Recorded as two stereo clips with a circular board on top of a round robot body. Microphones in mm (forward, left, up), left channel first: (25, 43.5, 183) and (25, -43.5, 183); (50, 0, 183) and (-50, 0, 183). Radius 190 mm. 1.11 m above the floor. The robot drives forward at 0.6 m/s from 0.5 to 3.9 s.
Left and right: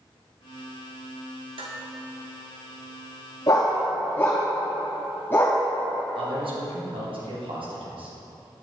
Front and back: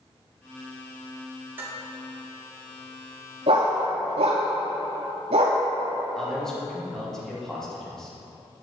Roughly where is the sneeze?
No sneeze in this recording.